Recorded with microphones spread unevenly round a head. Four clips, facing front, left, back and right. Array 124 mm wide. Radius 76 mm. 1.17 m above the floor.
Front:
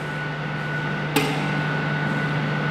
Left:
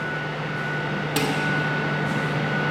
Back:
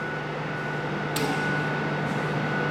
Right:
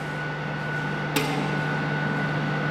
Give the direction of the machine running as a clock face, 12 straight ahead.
7 o'clock.